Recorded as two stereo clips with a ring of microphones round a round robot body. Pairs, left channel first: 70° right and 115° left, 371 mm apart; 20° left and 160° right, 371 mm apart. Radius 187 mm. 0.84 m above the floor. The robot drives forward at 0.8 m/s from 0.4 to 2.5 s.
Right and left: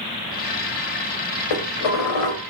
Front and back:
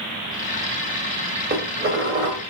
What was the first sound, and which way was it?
Dishes clattering, 90° right.